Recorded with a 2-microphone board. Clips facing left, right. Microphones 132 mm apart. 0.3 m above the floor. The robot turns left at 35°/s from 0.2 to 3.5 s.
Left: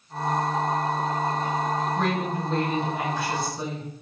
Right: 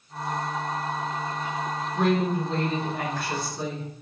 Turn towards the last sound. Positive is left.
turn(degrees=155)